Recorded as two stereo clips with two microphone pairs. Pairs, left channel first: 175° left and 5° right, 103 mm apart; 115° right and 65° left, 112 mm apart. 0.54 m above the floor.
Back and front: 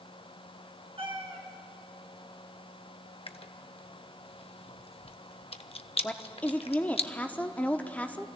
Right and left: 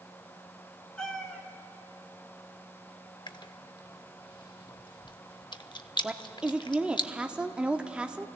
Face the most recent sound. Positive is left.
turn(degrees=130)